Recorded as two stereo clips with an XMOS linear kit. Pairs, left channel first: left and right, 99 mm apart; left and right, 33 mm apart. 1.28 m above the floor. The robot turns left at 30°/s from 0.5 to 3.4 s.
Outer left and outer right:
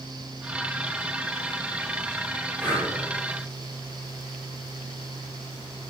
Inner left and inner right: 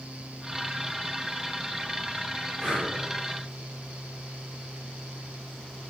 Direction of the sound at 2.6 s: 15° right (ahead or behind).